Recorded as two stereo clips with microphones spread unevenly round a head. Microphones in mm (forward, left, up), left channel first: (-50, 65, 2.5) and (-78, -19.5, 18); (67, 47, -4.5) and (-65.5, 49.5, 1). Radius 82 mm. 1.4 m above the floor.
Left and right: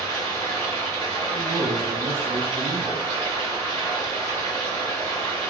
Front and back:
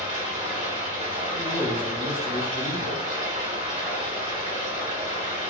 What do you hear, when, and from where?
0.0 s running water: 135° left, 1.6 m
1.3 s a man speaking: 30° right, 0.6 m